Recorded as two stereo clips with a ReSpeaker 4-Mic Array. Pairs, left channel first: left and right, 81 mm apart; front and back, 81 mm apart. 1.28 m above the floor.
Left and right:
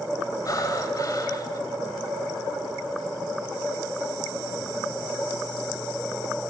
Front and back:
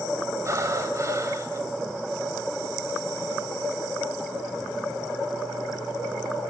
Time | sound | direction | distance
0.5 | breathing | 130° left | 2.5 m